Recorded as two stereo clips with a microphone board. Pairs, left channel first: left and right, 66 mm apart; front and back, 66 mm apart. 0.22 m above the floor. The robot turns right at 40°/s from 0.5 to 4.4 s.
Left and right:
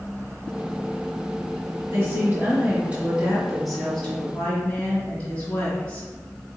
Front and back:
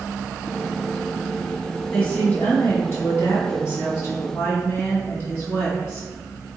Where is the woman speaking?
65° right, 1.8 m; by 6.1 s 35° left, 1.8 m.